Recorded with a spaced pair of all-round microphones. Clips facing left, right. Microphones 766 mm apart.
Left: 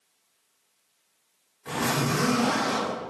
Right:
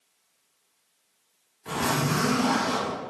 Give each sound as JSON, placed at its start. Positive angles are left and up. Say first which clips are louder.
{"t": 1.6, "sound": "a zipper", "louder": "even", "side_deg": 15, "distance_m": 1.7}